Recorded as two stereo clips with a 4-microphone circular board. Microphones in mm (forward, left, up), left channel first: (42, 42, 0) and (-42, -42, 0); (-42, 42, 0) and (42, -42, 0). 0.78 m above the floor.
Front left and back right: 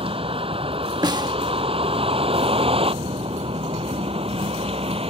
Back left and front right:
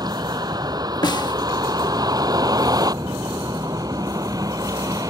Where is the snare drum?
Straight behind.